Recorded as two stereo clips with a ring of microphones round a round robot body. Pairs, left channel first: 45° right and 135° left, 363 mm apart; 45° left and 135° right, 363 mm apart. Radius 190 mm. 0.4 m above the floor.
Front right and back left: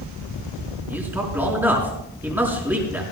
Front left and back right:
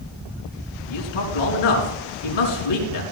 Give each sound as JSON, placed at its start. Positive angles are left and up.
{"t": 0.9, "sound": "a man speaking", "azimuth_deg": 50, "distance_m": 5.0}